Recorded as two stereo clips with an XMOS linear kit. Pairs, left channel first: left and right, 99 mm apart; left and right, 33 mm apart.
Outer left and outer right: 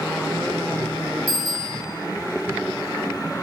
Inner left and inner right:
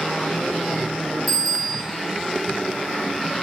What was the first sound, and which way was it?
A bicycle bell, centre (ahead or behind).